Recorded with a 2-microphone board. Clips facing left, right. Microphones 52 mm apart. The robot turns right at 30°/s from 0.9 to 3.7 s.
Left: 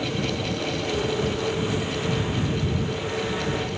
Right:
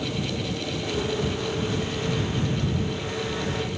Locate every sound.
Only background noise.